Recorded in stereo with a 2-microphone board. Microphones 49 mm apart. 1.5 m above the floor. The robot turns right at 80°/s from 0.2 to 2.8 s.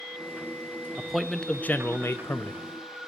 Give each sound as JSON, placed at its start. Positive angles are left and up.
{"t": 1.0, "sound": "a man speaking", "azimuth_deg": -20, "distance_m": 0.6}